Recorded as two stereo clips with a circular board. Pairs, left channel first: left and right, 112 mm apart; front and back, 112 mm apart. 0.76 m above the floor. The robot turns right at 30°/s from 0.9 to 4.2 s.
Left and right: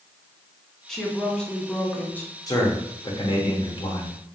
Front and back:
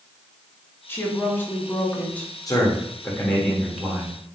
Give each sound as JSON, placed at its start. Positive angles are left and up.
{"t": 0.9, "sound": "a woman speaking", "azimuth_deg": 15, "distance_m": 0.8}
{"t": 2.5, "sound": "a man speaking", "azimuth_deg": 45, "distance_m": 1.1}